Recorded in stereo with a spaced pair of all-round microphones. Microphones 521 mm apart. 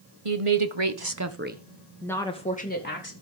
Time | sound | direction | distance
0.2 | a woman speaking | 80° right | 1.7 m